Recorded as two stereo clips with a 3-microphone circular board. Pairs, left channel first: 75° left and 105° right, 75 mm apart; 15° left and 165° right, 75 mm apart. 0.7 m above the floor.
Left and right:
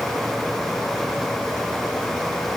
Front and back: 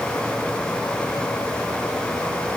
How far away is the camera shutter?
No camera shutter in this recording.